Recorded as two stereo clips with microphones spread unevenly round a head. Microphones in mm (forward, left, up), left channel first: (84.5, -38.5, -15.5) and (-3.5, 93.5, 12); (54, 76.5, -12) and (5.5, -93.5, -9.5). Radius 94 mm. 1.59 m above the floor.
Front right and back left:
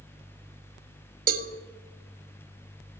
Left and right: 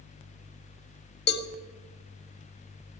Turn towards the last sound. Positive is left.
turn(degrees=105)